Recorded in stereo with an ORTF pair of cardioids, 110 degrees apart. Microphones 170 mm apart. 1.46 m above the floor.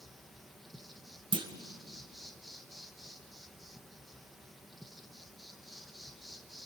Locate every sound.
0.0 s an insect: straight ahead, 1.8 m
1.3 s a clunk: 30° right, 2.0 m